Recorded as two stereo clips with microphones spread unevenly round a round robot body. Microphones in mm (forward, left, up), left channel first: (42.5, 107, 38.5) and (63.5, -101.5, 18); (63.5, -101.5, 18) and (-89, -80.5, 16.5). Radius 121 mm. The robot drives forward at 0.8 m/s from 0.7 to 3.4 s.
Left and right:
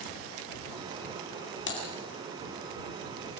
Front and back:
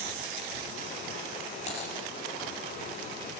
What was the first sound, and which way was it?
Typing on a keyboard, 60° left.